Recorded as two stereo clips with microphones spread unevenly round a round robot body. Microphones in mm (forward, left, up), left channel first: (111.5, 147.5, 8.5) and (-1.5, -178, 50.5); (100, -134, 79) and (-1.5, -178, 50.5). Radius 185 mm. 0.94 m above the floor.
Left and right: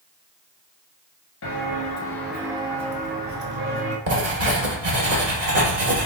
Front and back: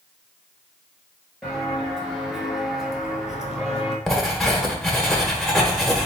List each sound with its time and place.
1.4 s footsteps: 80° left, 1.0 m; by 4.0 s 65° right, 1.9 m
4.1 s writing: 60° right, 1.5 m